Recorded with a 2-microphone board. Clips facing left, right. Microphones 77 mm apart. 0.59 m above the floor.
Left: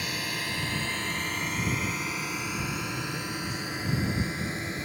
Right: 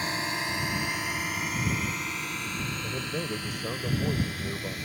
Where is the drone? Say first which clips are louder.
Right 3 dB; 30° right (ahead or behind); by 4.9 s 25° left (ahead or behind).